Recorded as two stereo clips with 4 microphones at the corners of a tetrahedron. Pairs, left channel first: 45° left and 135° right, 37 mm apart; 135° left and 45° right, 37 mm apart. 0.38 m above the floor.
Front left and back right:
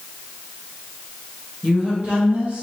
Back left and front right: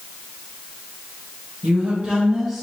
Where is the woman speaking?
75° right, 1.9 m; by 2.6 s 140° right, 1.4 m.